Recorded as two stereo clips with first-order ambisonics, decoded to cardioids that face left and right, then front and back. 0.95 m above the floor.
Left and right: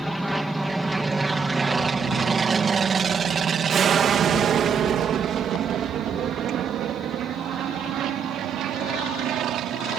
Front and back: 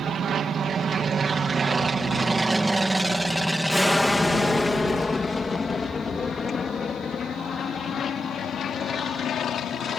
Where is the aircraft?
Straight behind; by 10.0 s 50° right.